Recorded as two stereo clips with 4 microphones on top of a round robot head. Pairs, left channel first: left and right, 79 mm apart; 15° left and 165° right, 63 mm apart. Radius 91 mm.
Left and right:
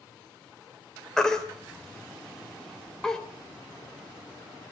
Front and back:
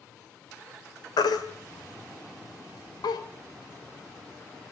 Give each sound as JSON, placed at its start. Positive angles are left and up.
{"t": 1.2, "sound": "a baby crying", "azimuth_deg": 5, "distance_m": 2.5}